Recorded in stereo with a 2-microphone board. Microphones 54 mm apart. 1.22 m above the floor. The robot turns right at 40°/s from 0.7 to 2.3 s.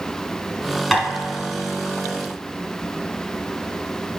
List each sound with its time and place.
0.9 s tapping: centre (ahead or behind), 1.7 m